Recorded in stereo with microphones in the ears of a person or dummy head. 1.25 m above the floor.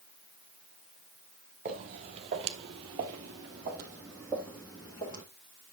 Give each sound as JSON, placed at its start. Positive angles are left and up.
{"t": 1.6, "sound": "footsteps", "side_deg": -40, "distance_m": 1.8}